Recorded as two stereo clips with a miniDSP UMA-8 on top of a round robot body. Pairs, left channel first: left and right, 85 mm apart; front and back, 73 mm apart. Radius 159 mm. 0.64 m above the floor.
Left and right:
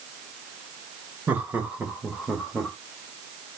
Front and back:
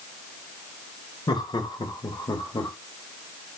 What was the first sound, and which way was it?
Laughter, 20° right.